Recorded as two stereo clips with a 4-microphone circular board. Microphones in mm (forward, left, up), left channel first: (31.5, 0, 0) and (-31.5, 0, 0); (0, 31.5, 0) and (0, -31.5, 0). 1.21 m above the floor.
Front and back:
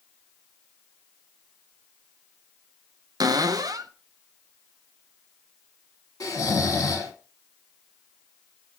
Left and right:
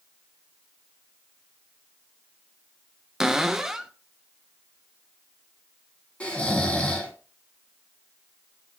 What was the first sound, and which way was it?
A cupboard door, 170° right.